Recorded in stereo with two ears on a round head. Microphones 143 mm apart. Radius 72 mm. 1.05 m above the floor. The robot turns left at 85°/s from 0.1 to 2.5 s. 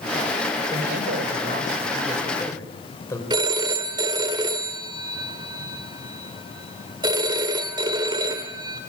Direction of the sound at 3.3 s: 25° right (ahead or behind).